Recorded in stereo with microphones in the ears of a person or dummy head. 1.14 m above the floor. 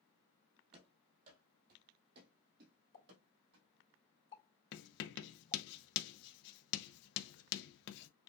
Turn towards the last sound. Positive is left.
turn(degrees=60)  # may be behind; listen again after turning